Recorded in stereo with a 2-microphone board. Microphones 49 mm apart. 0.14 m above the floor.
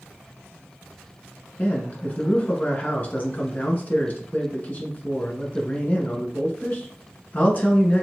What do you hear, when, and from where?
1.6 s a man speaking: 35° left (ahead or behind), 1.4 m